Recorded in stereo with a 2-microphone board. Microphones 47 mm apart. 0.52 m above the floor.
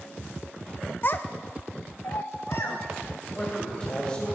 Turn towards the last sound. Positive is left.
turn(degrees=25)  # may be behind; listen again after turning